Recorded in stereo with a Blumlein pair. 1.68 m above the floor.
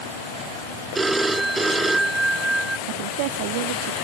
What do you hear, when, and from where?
0.9 s a phone ringing: 5° right
2.9 s a woman speaking: 45° right